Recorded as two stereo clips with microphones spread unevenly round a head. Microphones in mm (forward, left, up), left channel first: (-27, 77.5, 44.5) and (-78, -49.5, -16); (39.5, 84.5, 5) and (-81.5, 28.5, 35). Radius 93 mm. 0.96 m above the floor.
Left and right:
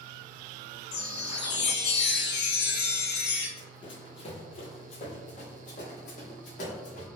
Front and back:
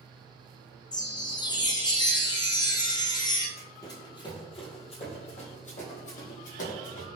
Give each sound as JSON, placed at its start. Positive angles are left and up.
{"t": 0.9, "sound": "a chime", "azimuth_deg": 65, "distance_m": 1.1}
{"t": 3.6, "sound": "running footsteps", "azimuth_deg": 100, "distance_m": 1.8}